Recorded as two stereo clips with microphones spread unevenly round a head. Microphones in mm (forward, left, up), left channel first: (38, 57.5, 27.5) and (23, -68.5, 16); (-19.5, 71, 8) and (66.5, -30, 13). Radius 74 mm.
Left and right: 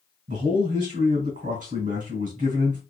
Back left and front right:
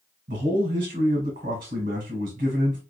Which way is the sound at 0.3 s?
80° right.